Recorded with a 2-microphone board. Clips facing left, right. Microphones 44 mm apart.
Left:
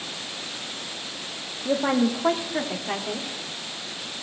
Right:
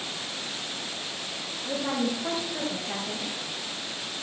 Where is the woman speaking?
60° left (ahead or behind), 1.6 m; by 3.4 s 50° left (ahead or behind), 2.5 m.